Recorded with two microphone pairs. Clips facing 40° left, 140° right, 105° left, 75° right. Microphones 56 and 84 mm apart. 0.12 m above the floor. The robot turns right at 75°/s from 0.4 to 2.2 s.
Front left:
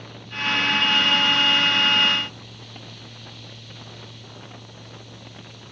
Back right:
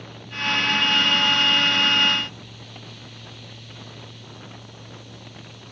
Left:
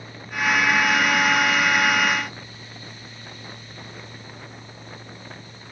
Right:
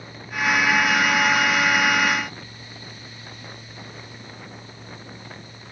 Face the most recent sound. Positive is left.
No sound to turn to.